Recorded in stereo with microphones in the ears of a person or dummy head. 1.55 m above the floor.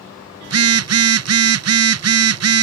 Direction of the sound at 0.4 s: 75° right (ahead or behind).